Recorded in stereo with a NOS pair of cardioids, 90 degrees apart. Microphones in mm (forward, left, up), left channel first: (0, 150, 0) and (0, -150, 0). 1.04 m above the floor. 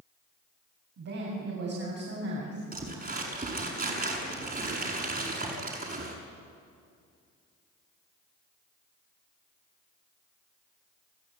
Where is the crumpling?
30° right, 7 m.